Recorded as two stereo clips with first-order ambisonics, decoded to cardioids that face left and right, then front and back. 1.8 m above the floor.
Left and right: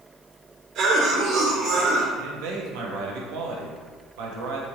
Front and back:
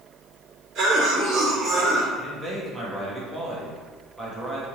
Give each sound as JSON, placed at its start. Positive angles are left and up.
{"t": 0.8, "sound": "a cough", "azimuth_deg": -125, "distance_m": 1.7}
{"t": 2.2, "sound": "a man speaking", "azimuth_deg": -100, "distance_m": 1.0}